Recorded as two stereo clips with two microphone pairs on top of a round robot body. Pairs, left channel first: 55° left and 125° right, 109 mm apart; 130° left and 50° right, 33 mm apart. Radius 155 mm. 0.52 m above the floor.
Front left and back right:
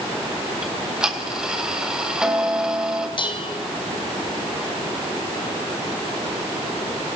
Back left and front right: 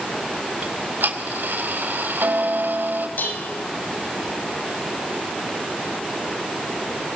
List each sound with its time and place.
0.6 s ticking: 40° right, 3.5 m
3.2 s dishes clattering: 100° left, 3 m